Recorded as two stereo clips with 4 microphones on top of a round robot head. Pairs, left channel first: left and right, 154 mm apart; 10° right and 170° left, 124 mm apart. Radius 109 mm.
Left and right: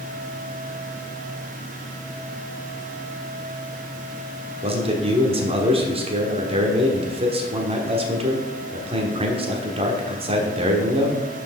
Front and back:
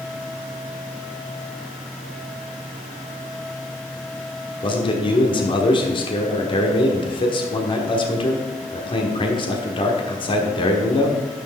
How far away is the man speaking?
About 1.3 m.